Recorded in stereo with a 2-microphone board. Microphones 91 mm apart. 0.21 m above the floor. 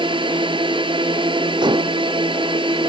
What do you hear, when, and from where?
0.0 s a drone: 70° right (ahead or behind)
1.6 s dishes clattering: 60° right (ahead or behind)